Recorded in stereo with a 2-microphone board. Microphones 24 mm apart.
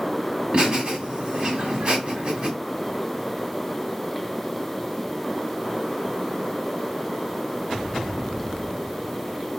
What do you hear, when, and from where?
0.5 s laughter: 40° right (ahead or behind), 1.5 m